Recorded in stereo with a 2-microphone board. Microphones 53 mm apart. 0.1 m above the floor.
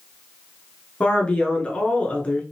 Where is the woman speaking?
25° left (ahead or behind), 1.1 m.